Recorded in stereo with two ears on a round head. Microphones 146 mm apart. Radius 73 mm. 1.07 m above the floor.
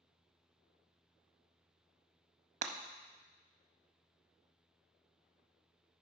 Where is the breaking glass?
45° right (ahead or behind), 0.7 m.